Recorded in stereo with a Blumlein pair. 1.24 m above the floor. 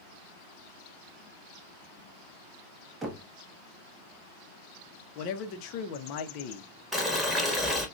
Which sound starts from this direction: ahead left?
A man speaking, at 5.2 s.